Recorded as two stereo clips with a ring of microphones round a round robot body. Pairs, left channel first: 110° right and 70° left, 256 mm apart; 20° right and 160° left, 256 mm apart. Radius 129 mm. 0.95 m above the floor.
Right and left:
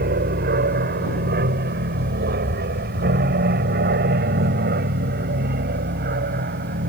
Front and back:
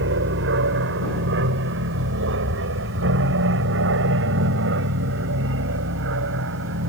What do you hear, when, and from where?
0.0 s an aircraft: 120° left